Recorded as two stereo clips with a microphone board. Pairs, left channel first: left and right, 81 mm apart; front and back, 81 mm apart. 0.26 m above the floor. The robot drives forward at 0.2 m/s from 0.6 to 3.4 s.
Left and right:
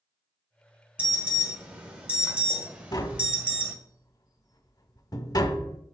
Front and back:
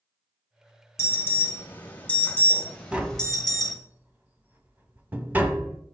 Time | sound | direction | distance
1.0 | an alarm | 30° right | 1.2 m
2.9 | tapping | 105° left | 0.6 m